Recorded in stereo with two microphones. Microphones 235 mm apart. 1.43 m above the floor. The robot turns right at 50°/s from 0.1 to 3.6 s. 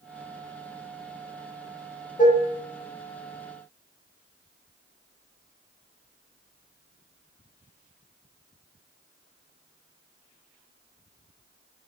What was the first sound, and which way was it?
Dishes clattering, 35° left (ahead or behind).